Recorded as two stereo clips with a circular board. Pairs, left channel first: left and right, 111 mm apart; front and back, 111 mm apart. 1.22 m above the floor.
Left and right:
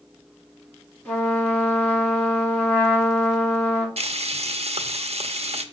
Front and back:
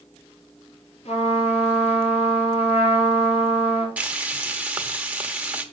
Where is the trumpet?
15° left, 4.5 m.